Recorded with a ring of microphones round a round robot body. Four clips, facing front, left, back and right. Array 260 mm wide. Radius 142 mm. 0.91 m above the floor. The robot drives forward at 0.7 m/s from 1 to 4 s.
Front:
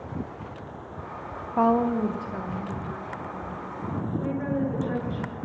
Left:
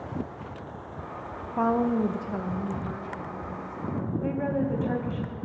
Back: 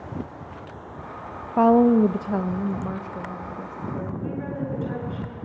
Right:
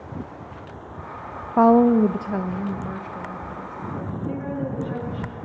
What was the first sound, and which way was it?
A woman speaking, 110° right.